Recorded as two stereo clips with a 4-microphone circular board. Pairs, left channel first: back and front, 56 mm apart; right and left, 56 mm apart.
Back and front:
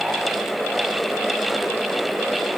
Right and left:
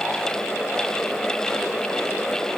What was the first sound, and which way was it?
Only background noise.